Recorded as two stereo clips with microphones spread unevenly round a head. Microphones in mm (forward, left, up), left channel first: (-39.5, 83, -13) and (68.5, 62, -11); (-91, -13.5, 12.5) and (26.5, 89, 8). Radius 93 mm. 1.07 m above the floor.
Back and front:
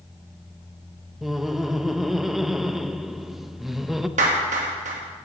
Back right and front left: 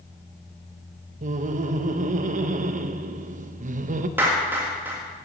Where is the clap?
40° right, 1.6 m.